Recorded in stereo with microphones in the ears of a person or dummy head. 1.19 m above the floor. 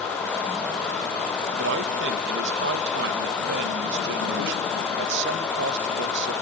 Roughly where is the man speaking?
Right.